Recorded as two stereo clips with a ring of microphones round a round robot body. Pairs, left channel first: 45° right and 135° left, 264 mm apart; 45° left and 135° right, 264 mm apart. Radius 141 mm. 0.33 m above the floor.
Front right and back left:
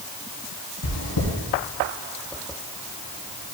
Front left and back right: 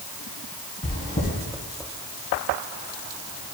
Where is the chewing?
15° right, 1.5 m.